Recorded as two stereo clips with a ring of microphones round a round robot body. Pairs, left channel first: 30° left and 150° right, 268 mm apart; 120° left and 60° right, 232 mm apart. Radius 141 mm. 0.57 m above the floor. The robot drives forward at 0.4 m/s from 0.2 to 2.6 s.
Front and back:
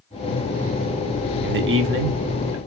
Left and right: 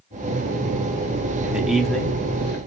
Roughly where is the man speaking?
Behind right.